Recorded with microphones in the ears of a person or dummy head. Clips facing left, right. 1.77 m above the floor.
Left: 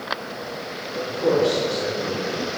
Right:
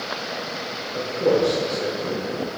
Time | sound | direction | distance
0.9 | a man speaking | 45° right (ahead or behind) | 1.6 m